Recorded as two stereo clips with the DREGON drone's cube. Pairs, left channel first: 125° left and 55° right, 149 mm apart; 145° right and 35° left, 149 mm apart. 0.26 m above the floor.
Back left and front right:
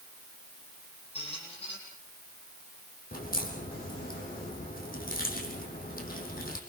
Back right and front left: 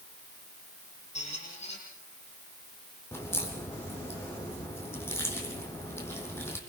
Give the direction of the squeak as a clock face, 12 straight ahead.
6 o'clock.